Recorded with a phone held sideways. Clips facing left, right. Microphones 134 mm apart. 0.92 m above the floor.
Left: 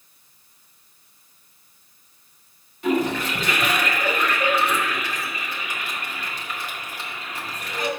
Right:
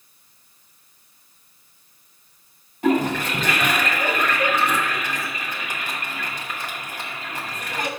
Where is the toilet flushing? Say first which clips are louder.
Right 2 dB; 45° right (ahead or behind), 1.7 m.